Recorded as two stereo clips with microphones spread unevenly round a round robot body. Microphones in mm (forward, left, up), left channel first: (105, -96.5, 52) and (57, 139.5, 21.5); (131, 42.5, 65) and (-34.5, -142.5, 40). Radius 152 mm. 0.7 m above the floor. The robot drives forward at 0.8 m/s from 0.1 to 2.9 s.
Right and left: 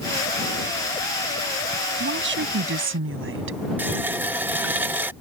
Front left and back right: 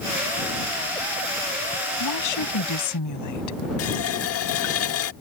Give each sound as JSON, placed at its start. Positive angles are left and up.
{"t": 2.0, "sound": "a woman speaking", "azimuth_deg": 60}
{"t": 3.8, "sound": "a running tap", "azimuth_deg": 20}